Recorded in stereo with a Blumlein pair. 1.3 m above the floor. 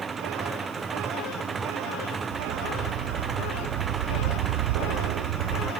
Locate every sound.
0.0 s an engine running: 15° right
2.3 s a dog barking: 50° right